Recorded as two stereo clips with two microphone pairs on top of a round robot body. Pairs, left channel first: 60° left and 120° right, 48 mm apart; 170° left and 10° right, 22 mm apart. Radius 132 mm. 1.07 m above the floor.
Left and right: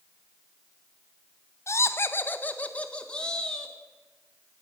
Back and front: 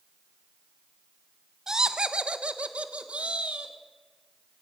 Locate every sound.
1.7 s laughter: 45° left, 0.8 m; by 3.7 s 20° right, 1.9 m